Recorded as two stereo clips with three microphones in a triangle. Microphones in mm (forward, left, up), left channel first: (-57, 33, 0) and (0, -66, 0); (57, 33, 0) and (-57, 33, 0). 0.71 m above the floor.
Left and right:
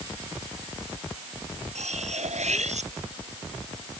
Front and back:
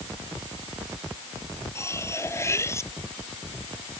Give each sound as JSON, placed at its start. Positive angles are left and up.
{"t": 1.8, "sound": "cutlery clinking", "azimuth_deg": -65}